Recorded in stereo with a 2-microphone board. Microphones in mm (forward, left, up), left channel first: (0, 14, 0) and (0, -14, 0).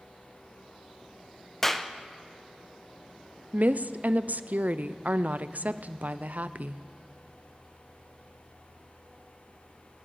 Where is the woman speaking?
70° right (ahead or behind), 0.5 m.